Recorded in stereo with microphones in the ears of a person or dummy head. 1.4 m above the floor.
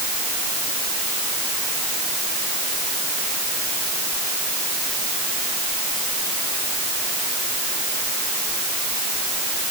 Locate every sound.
Only background noise.